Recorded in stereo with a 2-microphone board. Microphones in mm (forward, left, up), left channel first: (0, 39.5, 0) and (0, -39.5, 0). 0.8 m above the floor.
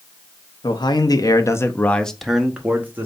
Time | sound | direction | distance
0.6 | a man speaking | 65° left (ahead or behind) | 0.8 m